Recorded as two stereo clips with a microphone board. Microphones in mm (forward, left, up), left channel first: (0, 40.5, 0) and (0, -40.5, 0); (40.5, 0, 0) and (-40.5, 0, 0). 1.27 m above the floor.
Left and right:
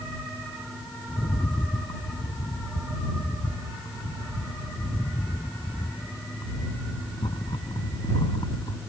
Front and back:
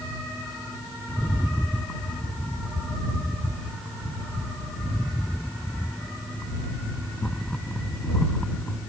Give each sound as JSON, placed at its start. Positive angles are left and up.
{"t": 1.1, "sound": "a rattle", "azimuth_deg": 75}